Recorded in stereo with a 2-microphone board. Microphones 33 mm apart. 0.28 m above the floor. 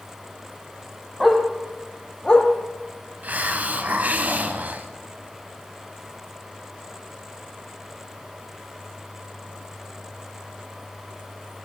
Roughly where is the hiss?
Right.